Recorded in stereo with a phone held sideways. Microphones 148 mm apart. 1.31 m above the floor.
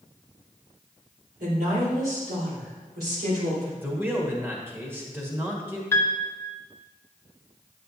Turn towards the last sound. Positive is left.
turn(degrees=15)  # may be behind; listen again after turning